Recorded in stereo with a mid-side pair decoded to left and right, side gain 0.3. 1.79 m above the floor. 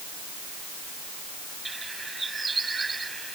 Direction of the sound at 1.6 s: 35° right.